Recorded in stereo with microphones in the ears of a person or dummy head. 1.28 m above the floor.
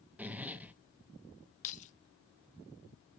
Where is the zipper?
5° right (ahead or behind), 0.6 m.